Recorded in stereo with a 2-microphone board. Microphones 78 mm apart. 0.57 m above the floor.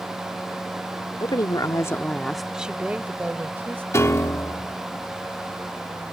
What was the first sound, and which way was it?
A woman speaking, 55° left (ahead or behind).